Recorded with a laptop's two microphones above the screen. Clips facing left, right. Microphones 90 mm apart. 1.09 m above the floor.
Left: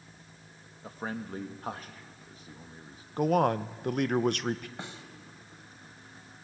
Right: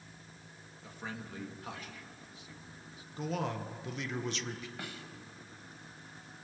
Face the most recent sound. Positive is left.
turn(degrees=25)  # may be behind; listen again after turning